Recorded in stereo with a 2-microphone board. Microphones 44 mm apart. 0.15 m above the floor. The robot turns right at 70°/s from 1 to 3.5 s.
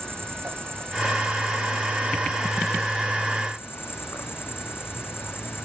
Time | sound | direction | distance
0.0 | an insect | 115° right | ?